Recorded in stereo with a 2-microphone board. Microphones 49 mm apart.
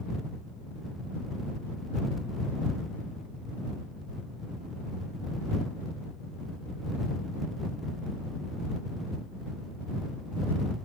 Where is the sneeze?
I don't hear a sneeze.